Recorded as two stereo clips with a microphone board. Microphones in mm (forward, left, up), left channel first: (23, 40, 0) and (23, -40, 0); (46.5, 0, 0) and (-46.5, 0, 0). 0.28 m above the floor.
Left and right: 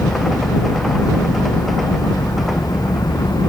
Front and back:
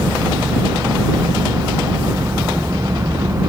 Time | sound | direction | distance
0.0 | an engine running | 125° left | ?